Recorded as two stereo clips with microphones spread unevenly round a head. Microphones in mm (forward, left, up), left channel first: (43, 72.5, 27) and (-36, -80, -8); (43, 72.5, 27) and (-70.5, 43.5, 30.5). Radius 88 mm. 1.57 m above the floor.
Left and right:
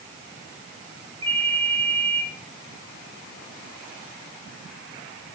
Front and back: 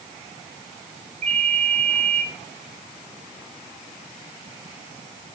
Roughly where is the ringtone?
Behind.